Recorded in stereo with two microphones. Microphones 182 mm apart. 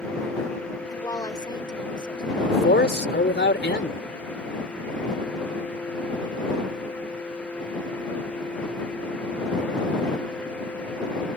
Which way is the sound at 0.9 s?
20° left (ahead or behind).